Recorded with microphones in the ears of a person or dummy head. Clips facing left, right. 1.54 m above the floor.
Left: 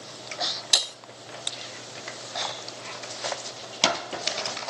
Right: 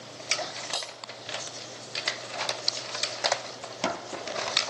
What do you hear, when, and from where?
0.7 s breaking glass: 15° left (ahead or behind), 0.7 m